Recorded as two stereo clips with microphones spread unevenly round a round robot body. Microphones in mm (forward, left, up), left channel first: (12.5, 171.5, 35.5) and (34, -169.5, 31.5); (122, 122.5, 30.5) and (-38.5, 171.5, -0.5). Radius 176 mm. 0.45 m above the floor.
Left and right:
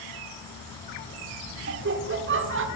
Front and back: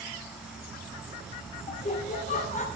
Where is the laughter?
60° right, 1.5 m.